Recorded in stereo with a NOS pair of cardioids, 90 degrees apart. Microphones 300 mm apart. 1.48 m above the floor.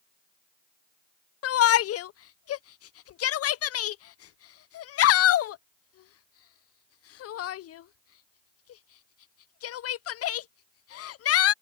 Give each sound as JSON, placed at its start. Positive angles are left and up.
{"t": 1.4, "sound": "a shout", "azimuth_deg": 55}